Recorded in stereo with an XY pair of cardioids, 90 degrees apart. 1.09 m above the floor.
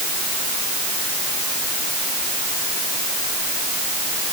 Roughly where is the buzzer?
I don't hear a buzzer.